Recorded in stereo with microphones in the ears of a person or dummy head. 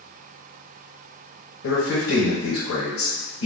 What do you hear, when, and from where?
1.6 s a man speaking: 75° left (ahead or behind), 0.9 m